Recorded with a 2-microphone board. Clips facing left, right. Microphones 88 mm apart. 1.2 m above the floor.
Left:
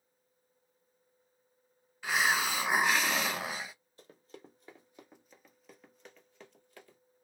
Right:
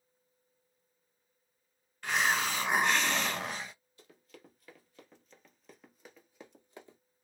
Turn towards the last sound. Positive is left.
turn(degrees=-25)  # may be behind; listen again after turning